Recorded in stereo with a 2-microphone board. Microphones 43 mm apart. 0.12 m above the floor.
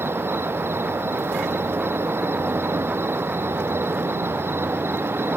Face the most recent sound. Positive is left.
turn(degrees=-60)  # may be behind; listen again after turning